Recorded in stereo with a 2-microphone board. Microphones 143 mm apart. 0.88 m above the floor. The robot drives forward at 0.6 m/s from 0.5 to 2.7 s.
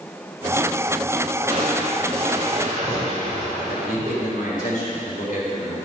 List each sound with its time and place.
1.5 s crushing: 45° right (ahead or behind), 3 m; by 4.7 s 55° right (ahead or behind), 2.5 m
3.7 s a man speaking: 70° left (ahead or behind), 3.5 m